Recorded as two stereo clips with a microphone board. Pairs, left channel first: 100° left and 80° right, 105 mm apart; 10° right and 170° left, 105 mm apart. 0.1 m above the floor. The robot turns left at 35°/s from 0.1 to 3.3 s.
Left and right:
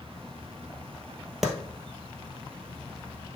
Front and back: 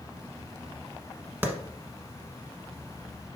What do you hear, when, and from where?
1.4 s a clap: 165° right, 1.1 m; by 1.5 s 170° right, 1.1 m